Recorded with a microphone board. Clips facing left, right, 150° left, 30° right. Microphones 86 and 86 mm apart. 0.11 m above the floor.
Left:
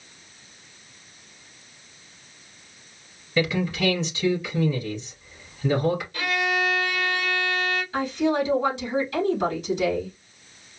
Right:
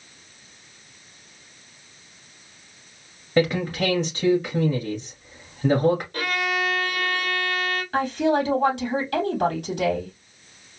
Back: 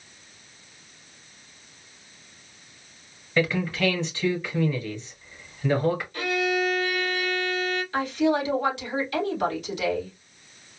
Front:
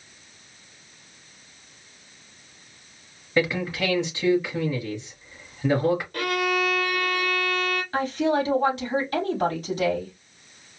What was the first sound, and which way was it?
A man speaking, 100° right.